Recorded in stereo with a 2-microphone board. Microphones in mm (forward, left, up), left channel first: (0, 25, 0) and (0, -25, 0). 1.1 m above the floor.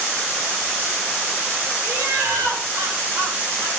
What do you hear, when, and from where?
1.8 s laughter: 70° right (ahead or behind), 6 m; by 3.7 s 65° right (ahead or behind), 7 m